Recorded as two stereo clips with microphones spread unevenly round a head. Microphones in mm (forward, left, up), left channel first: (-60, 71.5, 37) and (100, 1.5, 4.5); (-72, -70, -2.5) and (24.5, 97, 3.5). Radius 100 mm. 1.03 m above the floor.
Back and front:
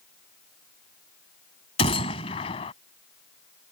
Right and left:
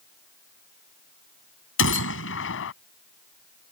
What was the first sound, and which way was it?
A gunshot, 140° right.